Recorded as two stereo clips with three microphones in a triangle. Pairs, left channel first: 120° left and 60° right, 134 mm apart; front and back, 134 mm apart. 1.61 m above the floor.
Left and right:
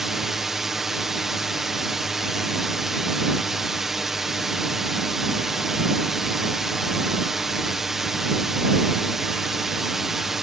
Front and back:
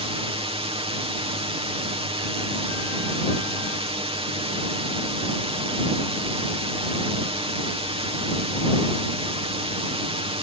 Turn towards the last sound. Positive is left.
turn(degrees=-145)